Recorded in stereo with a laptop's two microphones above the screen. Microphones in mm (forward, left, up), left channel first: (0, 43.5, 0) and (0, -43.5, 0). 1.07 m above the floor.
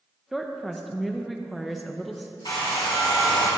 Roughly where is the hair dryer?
Left.